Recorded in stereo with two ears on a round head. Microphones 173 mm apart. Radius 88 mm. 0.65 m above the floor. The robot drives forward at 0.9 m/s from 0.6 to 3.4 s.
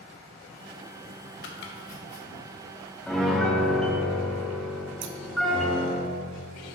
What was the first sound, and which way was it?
Chopping, 65° left (ahead or behind).